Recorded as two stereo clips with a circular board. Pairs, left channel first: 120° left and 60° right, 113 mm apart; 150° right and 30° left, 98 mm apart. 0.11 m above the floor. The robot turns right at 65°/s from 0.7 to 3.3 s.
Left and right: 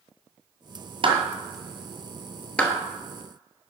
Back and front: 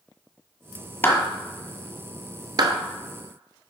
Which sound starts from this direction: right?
A clap, at 1.0 s.